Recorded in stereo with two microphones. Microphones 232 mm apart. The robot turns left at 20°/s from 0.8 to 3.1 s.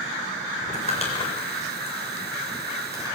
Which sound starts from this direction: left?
Crumpling, at 0.6 s.